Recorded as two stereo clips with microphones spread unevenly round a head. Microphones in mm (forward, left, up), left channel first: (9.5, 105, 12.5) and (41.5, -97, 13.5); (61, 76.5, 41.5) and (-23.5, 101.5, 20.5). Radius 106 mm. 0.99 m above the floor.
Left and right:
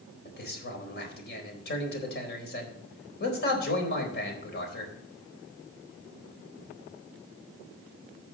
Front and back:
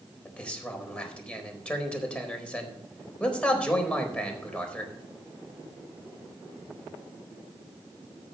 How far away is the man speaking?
About 4 m.